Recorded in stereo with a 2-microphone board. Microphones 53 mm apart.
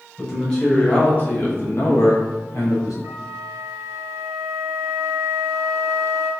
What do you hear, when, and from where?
0.2 s a man speaking: 15° left (ahead or behind), 1.5 m; by 2.9 s 80° left, 1.0 m
3.0 s a flute: 80° right, 0.7 m